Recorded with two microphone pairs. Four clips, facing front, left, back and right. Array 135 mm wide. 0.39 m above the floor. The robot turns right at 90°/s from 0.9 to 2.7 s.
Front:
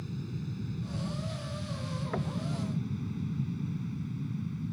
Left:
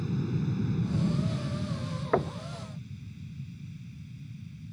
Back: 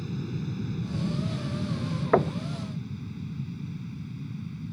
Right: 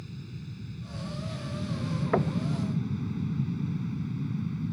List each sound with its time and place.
0.0 s an aircraft: 125° left; by 4.7 s 90° right
2.1 s knocking: straight behind; by 2.4 s 155° right